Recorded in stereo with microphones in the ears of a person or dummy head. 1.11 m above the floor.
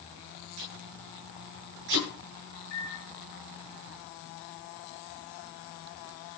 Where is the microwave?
65° left (ahead or behind), 3.5 m.